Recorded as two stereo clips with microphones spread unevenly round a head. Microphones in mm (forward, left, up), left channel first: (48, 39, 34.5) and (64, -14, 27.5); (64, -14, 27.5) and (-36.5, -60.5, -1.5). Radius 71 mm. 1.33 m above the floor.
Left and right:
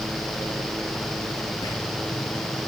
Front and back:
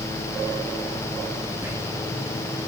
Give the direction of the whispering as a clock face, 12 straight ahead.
8 o'clock.